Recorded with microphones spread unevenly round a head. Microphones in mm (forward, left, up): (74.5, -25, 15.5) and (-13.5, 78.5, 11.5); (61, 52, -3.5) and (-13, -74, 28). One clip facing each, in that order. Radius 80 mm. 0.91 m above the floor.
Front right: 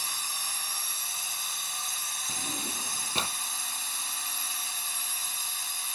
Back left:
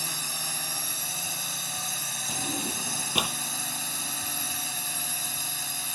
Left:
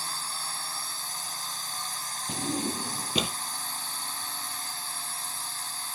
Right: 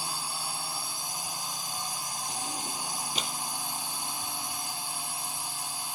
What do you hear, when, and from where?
0.0 s a drone: 160° left
2.3 s a drawer: 50° left